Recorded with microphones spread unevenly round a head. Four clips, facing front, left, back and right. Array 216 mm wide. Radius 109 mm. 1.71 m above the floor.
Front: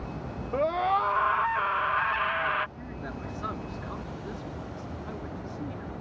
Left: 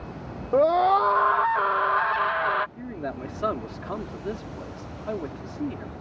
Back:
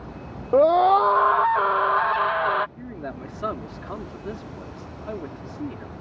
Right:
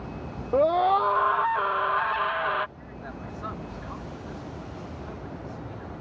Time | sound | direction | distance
0.5 | a scream | 170° left | ?
2.8 | a man speaking | 120° left | ?